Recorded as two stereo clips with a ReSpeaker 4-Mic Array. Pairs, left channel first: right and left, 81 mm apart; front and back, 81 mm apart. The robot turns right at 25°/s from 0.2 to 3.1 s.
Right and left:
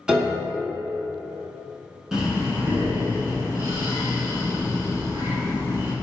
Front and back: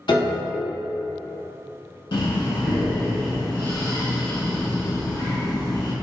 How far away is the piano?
About 0.6 m.